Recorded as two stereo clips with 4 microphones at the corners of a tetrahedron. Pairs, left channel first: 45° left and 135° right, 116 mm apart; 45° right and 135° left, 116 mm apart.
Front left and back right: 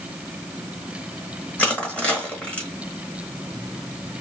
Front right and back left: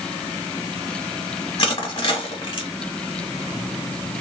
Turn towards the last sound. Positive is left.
turn(degrees=-30)